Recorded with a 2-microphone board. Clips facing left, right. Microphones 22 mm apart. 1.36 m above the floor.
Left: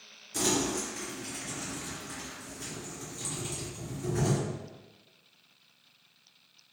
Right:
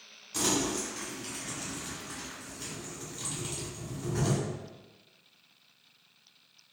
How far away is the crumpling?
About 1.5 m.